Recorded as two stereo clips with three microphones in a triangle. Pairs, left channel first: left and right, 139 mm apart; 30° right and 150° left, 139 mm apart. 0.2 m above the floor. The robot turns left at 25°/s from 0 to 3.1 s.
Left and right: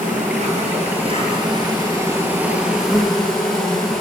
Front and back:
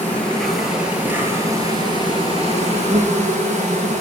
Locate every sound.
0.0 s an insect: 105° right, 0.9 m; by 4.0 s 175° left, 0.9 m